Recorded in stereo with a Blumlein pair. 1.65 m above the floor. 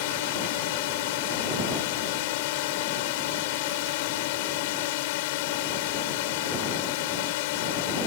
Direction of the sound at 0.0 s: 50° left.